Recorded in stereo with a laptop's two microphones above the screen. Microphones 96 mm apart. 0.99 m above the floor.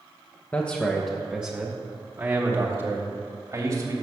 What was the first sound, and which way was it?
A man speaking, 15° left (ahead or behind).